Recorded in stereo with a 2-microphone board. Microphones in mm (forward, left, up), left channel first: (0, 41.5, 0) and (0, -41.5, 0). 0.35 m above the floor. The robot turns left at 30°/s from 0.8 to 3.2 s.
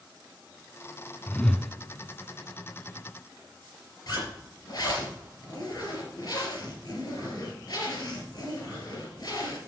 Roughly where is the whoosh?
Left.